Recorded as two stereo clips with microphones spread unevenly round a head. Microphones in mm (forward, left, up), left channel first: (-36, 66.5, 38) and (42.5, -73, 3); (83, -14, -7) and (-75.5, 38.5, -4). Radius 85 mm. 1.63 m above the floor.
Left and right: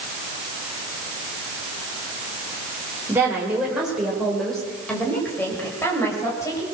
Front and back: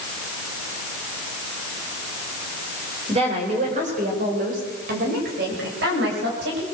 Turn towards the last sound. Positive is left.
turn(degrees=-170)